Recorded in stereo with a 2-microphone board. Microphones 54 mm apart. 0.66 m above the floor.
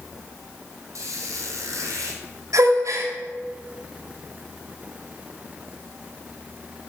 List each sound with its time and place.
0.9 s a squeak: 85° right, 3 m
2.5 s a gasp: 80° right, 2 m